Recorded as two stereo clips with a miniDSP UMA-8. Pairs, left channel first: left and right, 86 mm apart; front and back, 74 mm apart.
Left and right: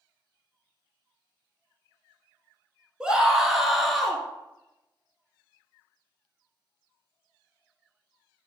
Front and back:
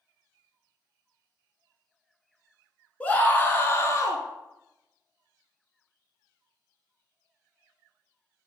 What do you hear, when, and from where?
3.0 s a scream: 30° right, 1.1 m; by 4.2 s 5° left, 1.4 m